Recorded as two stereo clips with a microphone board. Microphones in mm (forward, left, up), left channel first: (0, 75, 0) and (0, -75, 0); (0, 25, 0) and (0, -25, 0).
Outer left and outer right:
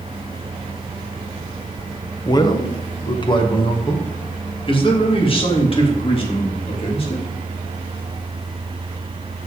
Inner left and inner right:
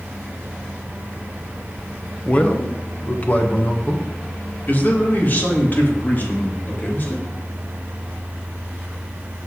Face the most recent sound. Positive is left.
turn(degrees=40)  # may be behind; listen again after turning